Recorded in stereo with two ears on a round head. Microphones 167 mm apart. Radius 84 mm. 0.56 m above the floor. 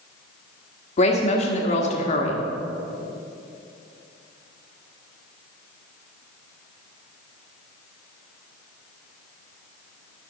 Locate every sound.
1.0 s a woman speaking: 35° left (ahead or behind), 1.4 m